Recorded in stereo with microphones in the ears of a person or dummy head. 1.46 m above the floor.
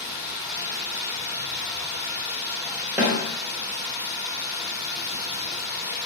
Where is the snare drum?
5° right (ahead or behind), 1.0 m.